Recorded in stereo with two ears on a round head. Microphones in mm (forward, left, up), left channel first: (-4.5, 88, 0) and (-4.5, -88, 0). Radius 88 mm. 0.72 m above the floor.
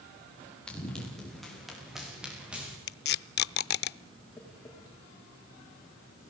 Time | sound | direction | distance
0.7 | running footsteps | 5° left (ahead or behind) | 9 m
2.9 | tape being pulled | 55° left (ahead or behind) | 0.5 m
4.4 | tapping | 10° left (ahead or behind) | 6.5 m